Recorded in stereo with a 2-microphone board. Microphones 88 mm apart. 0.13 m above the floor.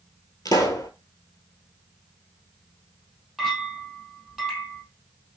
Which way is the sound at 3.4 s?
Centre (ahead or behind).